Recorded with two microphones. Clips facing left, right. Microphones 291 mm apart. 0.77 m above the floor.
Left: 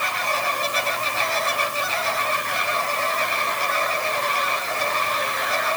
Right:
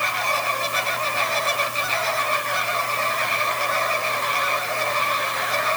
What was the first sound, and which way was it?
Only background noise.